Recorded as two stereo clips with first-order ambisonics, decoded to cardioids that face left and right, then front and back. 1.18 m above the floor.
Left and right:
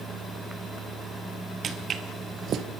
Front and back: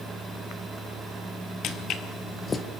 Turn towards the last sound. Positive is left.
turn(degrees=-65)